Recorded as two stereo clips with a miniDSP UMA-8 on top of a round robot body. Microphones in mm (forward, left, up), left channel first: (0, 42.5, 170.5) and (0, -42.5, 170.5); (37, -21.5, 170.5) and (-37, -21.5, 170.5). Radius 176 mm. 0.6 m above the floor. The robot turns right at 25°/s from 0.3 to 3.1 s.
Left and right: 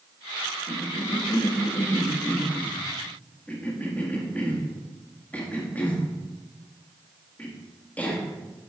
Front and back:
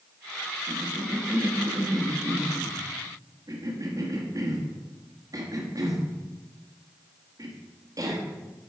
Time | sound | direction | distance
0.7 | a cough | 100° left | 1.5 m